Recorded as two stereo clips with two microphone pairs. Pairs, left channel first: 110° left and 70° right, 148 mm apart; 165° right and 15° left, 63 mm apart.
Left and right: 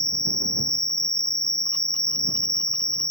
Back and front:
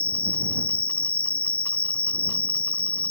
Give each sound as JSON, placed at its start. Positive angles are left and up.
{"t": 0.0, "sound": "an insect", "azimuth_deg": -35}